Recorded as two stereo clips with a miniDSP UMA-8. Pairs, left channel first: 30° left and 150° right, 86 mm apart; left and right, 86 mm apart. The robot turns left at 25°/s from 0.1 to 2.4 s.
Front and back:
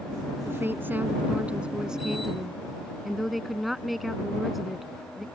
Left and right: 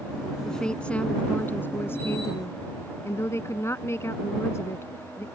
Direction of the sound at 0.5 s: 170° left.